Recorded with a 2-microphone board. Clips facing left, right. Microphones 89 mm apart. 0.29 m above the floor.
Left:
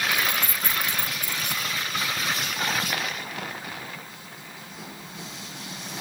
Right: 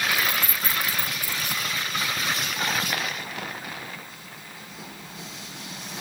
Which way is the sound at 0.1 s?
5° right (ahead or behind).